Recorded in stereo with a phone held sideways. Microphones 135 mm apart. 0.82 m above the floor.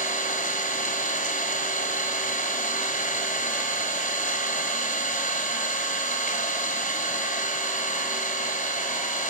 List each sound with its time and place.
0.0 s an engine running: 70° left (ahead or behind), 4.5 m